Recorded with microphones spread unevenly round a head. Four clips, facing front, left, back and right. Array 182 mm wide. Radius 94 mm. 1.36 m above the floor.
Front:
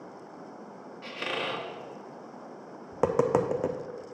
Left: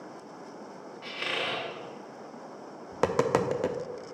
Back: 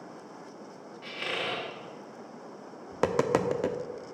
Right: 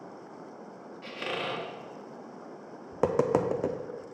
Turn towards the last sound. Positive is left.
turn(degrees=25)